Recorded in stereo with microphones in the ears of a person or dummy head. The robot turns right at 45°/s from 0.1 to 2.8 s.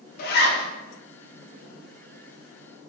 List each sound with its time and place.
0.2 s a zipper: 55° left (ahead or behind), 0.7 m; by 0.6 s 70° left (ahead or behind), 0.7 m